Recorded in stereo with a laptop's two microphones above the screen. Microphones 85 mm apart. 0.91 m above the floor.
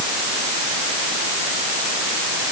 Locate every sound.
Only background noise.